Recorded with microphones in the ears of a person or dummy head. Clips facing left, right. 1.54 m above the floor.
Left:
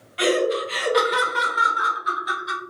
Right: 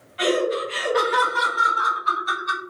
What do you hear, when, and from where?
0.2 s laughter: 60° left (ahead or behind), 1.0 m; by 2.6 s 10° left (ahead or behind), 1.2 m